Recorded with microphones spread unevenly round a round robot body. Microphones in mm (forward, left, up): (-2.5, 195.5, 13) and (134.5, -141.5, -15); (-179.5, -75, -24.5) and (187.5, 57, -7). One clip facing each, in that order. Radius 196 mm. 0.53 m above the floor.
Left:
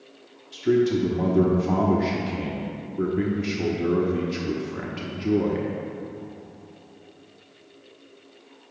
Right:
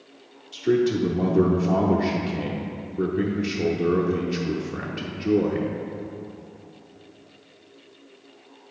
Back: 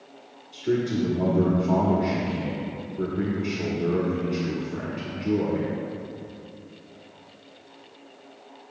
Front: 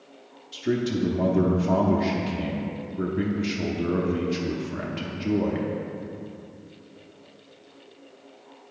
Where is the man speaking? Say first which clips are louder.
Even, back 1 dB; 40° left, 0.8 m.